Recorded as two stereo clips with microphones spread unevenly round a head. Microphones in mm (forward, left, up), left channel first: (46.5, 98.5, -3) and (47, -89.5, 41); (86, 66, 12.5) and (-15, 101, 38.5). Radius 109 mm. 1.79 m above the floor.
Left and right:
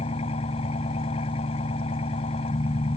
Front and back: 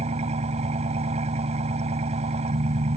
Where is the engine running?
155° left.